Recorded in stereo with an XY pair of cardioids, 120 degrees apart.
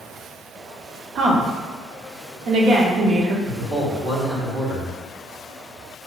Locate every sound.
1.1 s a woman speaking: 55° right, 0.8 m
3.5 s a man speaking: 25° right, 1.7 m